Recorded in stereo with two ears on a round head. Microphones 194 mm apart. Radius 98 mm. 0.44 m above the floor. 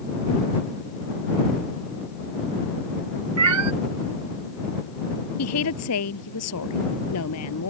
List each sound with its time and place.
3.4 s a cat meowing: 80° right
5.4 s a woman speaking: 85° left